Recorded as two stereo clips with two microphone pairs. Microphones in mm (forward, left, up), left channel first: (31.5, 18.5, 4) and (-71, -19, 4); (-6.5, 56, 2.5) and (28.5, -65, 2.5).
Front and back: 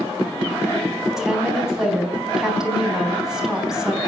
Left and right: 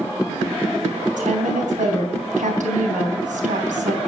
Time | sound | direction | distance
1.2 | a woman speaking | 75° right | 3.5 m